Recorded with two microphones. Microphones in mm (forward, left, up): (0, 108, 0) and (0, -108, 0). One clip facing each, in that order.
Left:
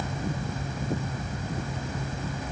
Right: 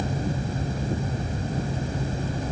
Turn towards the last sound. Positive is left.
No sound to turn to.